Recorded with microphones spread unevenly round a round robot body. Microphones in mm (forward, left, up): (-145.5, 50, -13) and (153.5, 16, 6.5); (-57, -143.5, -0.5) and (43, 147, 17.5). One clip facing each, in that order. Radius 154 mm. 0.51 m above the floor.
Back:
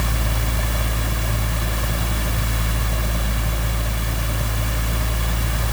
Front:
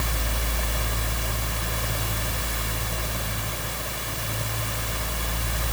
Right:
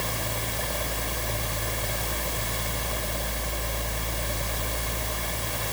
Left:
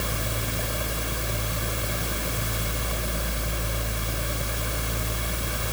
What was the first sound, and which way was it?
Only background noise.